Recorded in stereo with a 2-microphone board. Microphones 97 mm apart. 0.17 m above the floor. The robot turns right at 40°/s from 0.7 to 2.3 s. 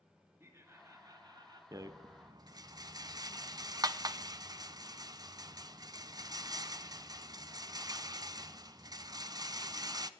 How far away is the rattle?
About 0.6 m.